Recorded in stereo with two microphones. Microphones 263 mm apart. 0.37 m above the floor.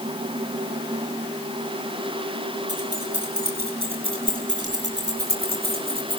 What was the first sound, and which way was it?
Keys jangling, 65° right (ahead or behind).